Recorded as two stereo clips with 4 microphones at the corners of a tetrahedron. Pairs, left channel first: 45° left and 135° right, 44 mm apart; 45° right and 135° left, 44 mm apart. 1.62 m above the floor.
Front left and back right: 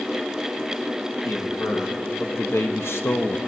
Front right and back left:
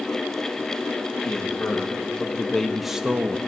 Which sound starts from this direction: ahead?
A man speaking, at 1.2 s.